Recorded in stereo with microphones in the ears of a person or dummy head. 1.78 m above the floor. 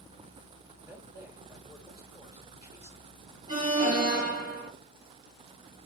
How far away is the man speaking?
About 2.5 m.